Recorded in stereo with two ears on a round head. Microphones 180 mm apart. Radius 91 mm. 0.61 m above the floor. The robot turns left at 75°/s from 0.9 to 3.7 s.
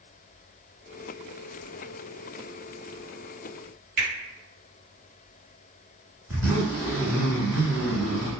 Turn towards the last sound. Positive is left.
turn(degrees=-15)  # may be behind; listen again after turning